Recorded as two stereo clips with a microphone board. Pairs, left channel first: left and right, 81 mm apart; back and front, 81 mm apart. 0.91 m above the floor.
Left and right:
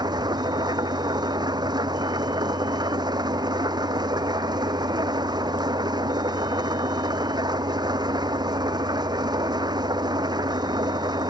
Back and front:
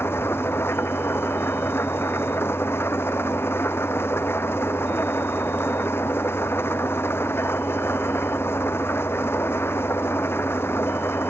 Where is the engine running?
120° right.